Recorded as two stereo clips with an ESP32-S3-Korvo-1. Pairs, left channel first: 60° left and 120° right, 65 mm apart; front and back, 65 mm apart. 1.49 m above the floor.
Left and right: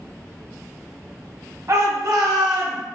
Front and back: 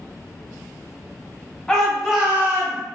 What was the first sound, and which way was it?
A shout, 80° right.